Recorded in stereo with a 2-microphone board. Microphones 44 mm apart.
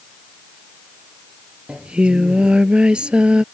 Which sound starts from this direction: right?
Singing, at 1.7 s.